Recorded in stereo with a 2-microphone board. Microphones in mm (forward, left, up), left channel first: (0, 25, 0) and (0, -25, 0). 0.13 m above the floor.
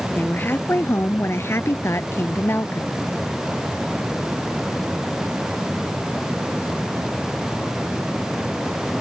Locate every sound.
0.1 s a woman speaking: 40° left (ahead or behind); by 3.0 s 45° left (ahead or behind)